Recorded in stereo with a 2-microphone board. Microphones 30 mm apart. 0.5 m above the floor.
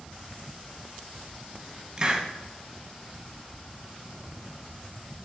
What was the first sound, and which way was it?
A hiss, 30° right (ahead or behind).